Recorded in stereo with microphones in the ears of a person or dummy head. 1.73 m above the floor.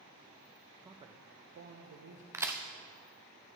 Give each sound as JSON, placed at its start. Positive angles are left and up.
{"t": 0.8, "sound": "a man speaking", "side_deg": -15, "distance_m": 0.6}
{"t": 2.3, "sound": "a crack", "side_deg": -10, "distance_m": 0.6}